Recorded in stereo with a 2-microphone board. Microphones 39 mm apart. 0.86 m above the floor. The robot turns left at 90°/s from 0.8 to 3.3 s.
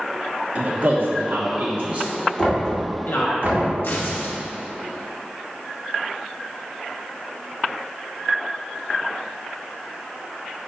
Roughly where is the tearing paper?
Left.